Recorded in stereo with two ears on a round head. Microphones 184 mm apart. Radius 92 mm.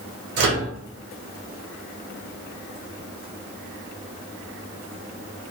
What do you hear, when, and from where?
0.4 s a microwave: 55° right (ahead or behind), 1.2 m